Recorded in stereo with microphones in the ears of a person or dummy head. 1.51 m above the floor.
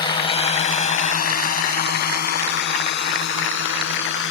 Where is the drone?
25° left (ahead or behind); by 4.3 s 70° left (ahead or behind).